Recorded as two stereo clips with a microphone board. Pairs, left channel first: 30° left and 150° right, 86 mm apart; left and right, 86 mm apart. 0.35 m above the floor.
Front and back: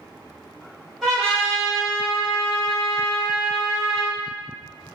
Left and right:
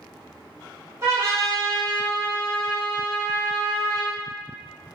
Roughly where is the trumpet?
Ahead right.